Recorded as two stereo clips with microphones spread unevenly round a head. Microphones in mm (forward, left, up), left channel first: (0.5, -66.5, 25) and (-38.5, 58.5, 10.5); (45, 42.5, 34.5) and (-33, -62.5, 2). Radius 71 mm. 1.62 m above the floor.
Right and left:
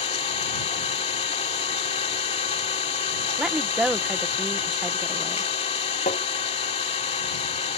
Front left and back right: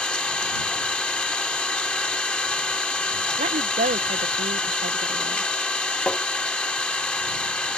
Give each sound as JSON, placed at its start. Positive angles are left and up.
{"t": 0.0, "sound": "an engine running", "azimuth_deg": -25}
{"t": 3.4, "sound": "a woman speaking", "azimuth_deg": -165}
{"t": 6.1, "sound": "tapping", "azimuth_deg": -25}